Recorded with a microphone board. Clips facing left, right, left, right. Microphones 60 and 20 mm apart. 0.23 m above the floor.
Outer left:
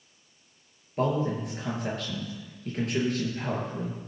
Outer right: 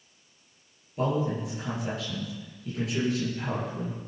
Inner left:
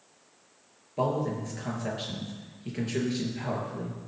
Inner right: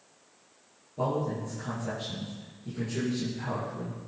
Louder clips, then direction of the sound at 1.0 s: Outer left 1 dB, inner left 2 dB; 50° left (ahead or behind).